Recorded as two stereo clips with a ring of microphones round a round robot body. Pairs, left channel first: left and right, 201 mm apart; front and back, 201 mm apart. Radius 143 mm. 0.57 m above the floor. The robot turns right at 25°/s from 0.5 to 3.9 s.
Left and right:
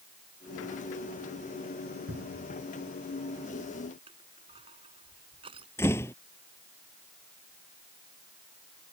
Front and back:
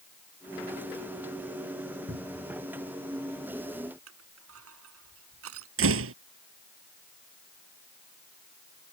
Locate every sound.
2.1 s a cupboard door: 135° right; by 2.6 s 125° right
4.1 s crushing: 165° right
5.8 s a door slam: 170° left